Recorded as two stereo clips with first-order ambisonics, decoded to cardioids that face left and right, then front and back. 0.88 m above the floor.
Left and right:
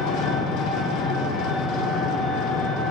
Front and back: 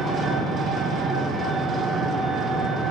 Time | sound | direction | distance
0.0 | an engine running | 110° left | 0.8 m